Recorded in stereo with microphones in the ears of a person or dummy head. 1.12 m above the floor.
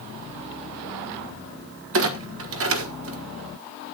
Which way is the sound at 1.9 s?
65° right (ahead or behind).